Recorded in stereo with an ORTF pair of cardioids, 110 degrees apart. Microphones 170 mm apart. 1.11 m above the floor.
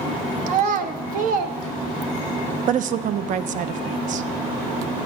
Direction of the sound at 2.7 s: 55° right.